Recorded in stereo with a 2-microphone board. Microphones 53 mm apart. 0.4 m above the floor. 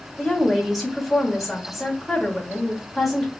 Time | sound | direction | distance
0.2 | a woman speaking | centre (ahead or behind) | 1.3 m